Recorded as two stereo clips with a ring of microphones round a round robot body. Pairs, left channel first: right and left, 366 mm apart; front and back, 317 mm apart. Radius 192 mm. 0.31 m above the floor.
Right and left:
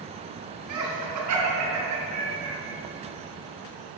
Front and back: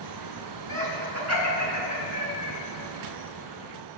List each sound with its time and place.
0.7 s laughter: 135° left, 3 m; by 2.5 s 140° left, 4 m